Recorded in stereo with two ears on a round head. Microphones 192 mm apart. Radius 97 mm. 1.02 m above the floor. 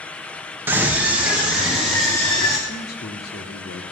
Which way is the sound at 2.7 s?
45° left (ahead or behind).